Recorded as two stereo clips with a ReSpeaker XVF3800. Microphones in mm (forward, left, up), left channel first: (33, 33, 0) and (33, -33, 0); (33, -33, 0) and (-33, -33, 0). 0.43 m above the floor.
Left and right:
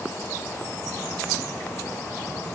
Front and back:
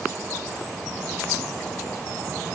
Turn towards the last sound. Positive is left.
No sound to turn to.